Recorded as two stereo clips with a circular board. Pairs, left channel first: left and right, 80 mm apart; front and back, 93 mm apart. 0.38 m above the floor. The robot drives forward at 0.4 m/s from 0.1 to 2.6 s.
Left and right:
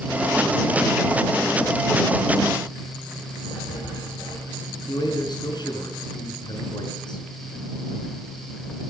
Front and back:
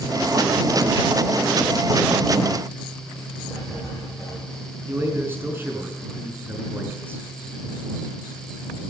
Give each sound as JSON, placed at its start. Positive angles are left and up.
{"t": 3.5, "sound": "writing", "azimuth_deg": 90, "distance_m": 8.0}
{"t": 4.9, "sound": "a man speaking", "azimuth_deg": 115, "distance_m": 5.0}